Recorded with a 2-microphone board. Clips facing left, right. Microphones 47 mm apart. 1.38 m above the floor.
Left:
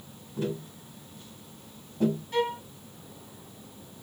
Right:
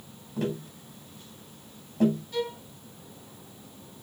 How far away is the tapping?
About 7 m.